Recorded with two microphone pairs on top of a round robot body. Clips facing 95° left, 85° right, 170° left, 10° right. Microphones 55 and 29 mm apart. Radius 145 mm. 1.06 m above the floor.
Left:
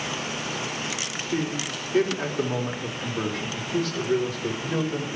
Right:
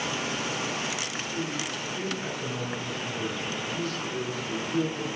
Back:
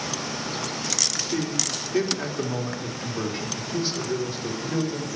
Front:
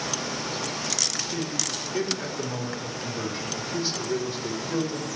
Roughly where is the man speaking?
Behind left.